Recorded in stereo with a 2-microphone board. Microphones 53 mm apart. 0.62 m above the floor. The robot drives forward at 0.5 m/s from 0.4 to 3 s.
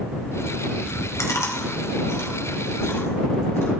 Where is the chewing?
80° left, 2.0 m; by 3.7 s 55° left (ahead or behind), 2.5 m.